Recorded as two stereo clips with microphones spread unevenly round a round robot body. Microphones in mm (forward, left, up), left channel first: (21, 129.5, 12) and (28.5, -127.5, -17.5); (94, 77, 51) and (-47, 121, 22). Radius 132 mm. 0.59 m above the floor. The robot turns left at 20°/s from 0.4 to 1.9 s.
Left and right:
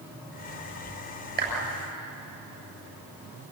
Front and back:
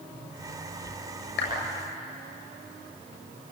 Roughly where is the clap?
Ahead right.